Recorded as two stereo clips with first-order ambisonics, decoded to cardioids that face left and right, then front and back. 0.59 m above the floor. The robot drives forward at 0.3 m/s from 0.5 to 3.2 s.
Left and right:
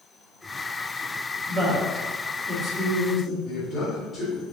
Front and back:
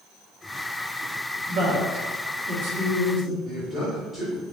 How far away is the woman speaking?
About 0.9 m.